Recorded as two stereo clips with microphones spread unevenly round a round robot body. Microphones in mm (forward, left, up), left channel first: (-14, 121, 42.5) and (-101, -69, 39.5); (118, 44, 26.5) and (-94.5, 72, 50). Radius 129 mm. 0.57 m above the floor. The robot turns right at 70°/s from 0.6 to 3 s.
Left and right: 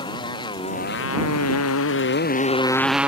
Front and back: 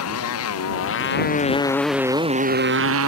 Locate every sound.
0.0 s a motorcycle: 10° right; by 3.1 s 160° left